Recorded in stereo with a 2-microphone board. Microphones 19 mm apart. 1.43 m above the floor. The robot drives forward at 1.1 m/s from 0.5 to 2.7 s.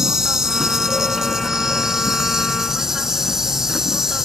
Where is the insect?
30° right (ahead or behind); by 4.2 s 25° right (ahead or behind).